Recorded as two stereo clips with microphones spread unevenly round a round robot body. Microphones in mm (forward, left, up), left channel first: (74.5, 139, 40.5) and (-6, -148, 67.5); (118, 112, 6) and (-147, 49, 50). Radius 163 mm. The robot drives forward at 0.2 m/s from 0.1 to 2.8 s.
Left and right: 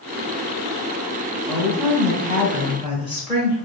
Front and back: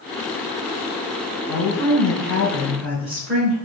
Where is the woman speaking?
160° left, 1.3 m; by 3.6 s 165° left, 1.5 m.